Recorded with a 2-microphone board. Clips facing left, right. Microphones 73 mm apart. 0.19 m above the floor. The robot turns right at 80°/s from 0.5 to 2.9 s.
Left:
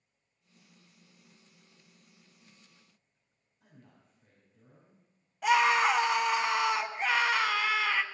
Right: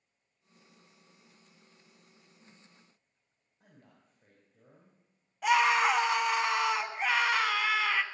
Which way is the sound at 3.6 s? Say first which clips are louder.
Left 1 dB; 55° right (ahead or behind).